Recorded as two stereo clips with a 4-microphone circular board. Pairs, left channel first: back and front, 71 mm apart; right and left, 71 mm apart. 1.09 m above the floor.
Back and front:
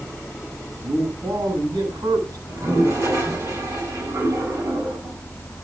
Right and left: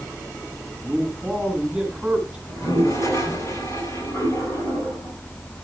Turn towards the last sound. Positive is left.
turn(degrees=-45)